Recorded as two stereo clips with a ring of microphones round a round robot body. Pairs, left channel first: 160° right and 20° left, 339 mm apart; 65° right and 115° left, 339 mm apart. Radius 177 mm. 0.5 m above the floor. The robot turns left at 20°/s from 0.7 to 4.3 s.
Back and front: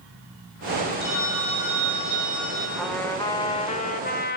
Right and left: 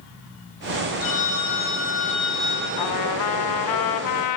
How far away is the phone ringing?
About 9 m.